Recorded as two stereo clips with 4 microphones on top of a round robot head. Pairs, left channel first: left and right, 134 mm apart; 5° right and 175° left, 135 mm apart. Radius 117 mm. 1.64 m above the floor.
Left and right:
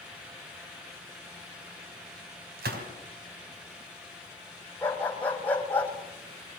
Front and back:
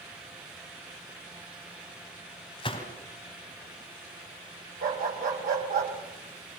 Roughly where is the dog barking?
Behind.